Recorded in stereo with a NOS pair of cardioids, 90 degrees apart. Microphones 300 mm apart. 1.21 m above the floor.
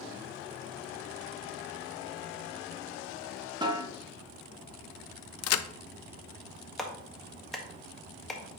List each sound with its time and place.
3.6 s a snare drum: 15° right, 1.7 m
5.4 s a crack: 55° left, 0.5 m
6.8 s a clap: straight ahead, 1.5 m